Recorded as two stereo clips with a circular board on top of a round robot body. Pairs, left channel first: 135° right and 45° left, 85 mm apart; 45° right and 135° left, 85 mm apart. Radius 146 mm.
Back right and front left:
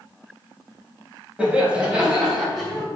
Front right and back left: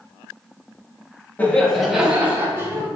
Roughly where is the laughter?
Ahead.